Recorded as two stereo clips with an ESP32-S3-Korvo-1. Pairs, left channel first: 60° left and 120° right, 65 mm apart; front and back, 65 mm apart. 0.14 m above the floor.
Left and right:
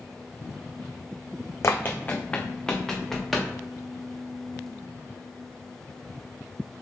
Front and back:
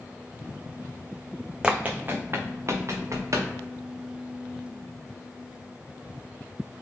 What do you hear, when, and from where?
1.6 s running footsteps: 105° left, 0.7 m; by 3.5 s 150° left, 1.8 m